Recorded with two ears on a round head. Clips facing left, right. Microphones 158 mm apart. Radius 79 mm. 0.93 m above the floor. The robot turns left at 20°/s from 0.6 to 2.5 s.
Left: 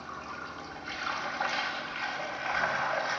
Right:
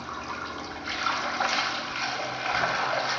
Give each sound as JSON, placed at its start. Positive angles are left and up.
{"t": 0.0, "sound": "running water", "azimuth_deg": -90, "distance_m": 0.7}